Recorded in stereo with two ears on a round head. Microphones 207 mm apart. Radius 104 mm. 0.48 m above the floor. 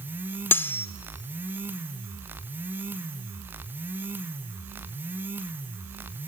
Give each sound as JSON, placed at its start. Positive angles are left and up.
{"t": 0.5, "sound": "cutlery clinking", "side_deg": 10, "distance_m": 0.7}